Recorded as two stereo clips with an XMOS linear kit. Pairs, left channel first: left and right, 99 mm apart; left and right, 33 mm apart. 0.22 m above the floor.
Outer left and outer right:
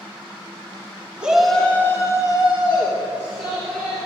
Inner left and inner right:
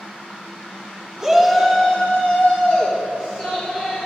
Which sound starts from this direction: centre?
A shout, at 1.2 s.